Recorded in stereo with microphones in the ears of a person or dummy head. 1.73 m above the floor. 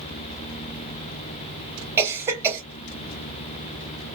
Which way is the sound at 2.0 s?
15° right (ahead or behind).